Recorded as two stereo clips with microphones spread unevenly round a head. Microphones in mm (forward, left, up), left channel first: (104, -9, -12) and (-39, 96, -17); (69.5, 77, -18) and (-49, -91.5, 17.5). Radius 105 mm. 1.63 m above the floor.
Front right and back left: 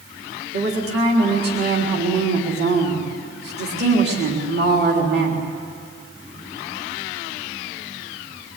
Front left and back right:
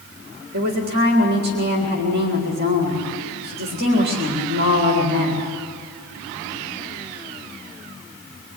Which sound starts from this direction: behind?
A woman speaking, at 0.5 s.